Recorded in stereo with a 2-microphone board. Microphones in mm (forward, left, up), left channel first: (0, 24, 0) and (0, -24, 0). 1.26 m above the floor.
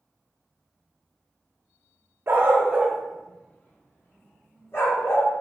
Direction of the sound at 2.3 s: 45° right (ahead or behind).